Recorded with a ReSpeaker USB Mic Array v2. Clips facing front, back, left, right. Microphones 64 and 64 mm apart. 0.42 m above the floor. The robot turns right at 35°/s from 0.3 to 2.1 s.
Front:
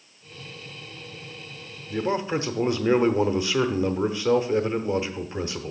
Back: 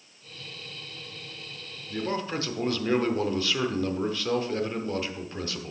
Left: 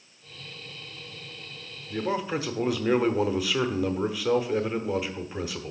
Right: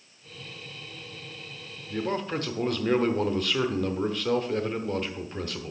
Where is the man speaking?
10° left, 0.9 m; by 5.7 s 15° left, 0.9 m.